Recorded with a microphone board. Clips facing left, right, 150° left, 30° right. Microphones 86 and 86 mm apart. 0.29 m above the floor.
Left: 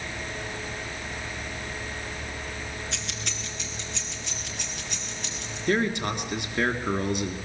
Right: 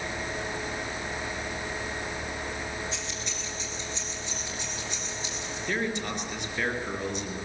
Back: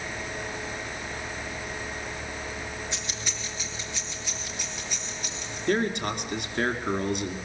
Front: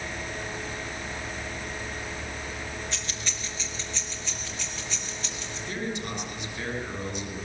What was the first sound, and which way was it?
Keys jangling, 80° left.